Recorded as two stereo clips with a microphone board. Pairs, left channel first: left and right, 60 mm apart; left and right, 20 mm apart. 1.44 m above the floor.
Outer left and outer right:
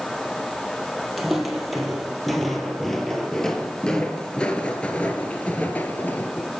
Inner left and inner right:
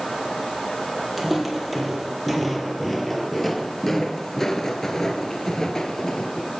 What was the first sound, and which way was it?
Footsteps, 5° right (ahead or behind).